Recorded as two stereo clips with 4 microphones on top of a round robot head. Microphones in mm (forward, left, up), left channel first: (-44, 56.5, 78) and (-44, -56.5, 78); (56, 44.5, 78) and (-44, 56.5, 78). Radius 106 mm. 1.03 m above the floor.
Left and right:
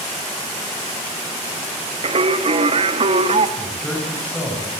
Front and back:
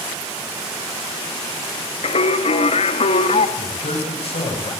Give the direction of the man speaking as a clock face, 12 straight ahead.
12 o'clock.